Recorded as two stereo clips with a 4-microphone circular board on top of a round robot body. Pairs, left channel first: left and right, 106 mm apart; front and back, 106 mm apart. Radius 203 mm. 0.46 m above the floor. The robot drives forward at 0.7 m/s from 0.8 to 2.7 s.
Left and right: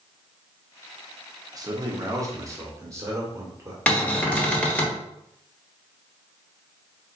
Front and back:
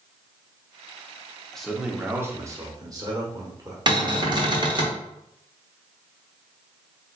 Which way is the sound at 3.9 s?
165° left.